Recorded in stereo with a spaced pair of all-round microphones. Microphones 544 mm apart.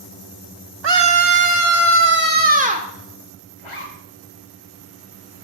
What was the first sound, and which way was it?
A scream, 55° right (ahead or behind).